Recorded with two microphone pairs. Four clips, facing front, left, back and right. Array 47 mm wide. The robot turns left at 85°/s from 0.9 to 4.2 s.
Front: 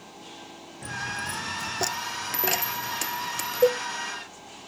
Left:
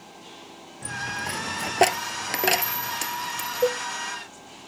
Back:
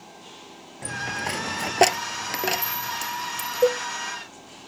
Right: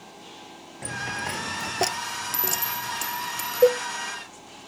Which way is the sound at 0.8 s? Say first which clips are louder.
Even, back 3 dB; 130° right.